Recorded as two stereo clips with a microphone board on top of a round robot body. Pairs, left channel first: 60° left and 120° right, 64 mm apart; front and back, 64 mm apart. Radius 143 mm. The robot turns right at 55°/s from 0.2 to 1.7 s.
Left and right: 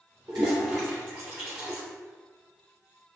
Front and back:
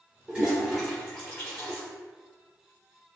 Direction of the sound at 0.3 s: 115° right.